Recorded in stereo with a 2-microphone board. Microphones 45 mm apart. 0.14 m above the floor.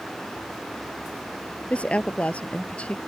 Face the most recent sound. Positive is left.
turn(degrees=30)  # may be behind; listen again after turning